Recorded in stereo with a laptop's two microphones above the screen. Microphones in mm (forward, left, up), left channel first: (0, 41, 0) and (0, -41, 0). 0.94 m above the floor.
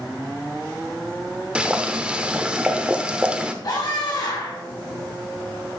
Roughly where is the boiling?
Centre.